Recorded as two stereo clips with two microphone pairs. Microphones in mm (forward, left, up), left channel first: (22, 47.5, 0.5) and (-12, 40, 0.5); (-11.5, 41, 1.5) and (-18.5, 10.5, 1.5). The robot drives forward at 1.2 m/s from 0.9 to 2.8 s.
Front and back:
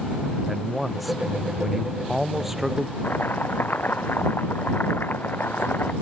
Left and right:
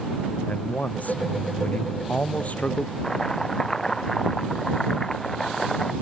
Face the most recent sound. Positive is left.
turn(degrees=0)